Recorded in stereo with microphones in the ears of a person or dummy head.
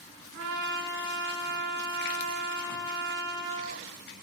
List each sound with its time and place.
0.3 s a trumpet: 65° right (ahead or behind), 5.5 m